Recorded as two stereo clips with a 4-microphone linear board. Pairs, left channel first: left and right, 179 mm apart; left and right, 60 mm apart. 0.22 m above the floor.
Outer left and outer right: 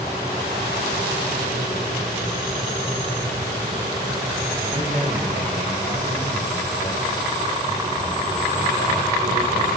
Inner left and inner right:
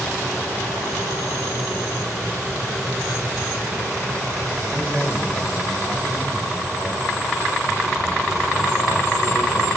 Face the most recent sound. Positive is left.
turn(degrees=-70)  # may be behind; listen again after turning